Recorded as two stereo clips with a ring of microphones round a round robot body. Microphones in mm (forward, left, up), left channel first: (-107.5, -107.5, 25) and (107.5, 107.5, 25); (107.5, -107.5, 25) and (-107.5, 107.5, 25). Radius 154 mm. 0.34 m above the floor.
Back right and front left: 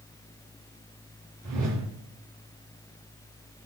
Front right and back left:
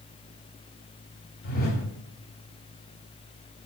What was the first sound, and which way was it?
A whoosh, 15° left.